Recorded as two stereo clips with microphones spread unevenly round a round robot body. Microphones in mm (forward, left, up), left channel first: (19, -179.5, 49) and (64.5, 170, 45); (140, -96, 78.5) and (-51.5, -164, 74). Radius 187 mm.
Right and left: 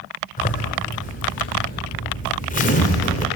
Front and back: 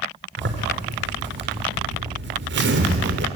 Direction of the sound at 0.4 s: 165° right.